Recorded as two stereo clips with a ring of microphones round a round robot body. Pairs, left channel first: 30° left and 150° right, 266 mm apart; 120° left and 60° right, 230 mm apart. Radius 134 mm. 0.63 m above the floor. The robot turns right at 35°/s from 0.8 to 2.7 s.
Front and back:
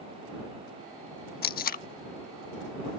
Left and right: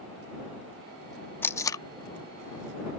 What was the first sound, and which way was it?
Tape being pulled, 45° left.